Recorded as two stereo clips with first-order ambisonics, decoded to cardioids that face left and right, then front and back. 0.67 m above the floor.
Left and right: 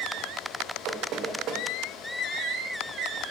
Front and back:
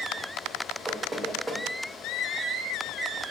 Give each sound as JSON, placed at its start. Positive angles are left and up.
{"t": 0.9, "sound": "knocking", "azimuth_deg": -110, "distance_m": 0.6}